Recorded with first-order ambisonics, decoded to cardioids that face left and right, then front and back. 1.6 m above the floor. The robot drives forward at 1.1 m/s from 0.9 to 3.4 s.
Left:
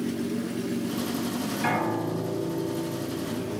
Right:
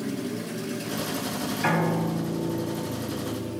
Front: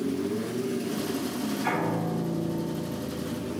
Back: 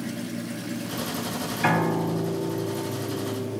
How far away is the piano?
About 2.5 m.